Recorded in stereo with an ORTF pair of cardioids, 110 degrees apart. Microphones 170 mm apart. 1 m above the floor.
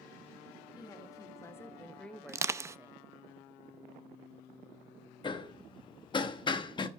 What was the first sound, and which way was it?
A woman speaking, 25° left.